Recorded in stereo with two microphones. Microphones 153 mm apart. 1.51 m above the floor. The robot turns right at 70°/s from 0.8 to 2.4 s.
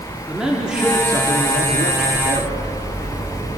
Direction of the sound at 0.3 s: 175° right.